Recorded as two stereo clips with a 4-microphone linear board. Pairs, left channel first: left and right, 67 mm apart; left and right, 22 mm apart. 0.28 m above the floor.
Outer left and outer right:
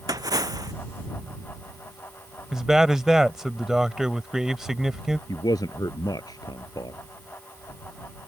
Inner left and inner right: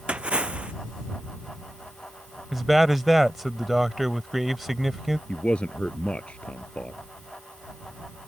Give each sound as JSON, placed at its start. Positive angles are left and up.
{"t": 0.1, "sound": "a splash", "side_deg": -65}
{"t": 2.5, "sound": "a man speaking", "side_deg": -10}
{"t": 5.3, "sound": "a man speaking", "side_deg": 75}